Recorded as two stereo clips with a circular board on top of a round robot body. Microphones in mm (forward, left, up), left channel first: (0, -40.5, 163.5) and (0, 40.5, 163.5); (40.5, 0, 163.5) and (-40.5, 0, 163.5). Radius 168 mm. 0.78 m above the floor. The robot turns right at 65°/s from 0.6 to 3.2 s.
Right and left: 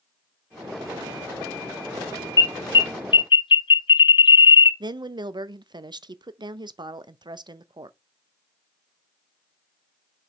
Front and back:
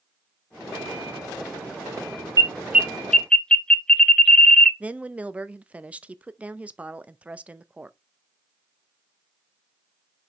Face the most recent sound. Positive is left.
turn(degrees=105)